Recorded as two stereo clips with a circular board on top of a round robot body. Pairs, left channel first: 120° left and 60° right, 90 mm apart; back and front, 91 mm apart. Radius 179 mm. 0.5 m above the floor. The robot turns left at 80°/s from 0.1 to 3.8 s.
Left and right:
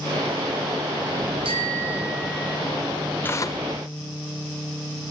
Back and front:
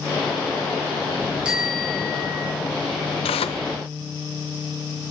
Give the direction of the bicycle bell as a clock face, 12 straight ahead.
3 o'clock.